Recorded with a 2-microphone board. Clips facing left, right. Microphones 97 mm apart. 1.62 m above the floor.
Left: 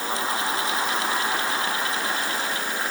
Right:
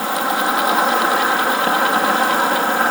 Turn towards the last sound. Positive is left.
turn(degrees=-75)  # may be behind; listen again after turning